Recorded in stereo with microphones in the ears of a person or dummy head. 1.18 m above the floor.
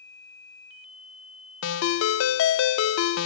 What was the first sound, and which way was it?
A ringtone, 85° left.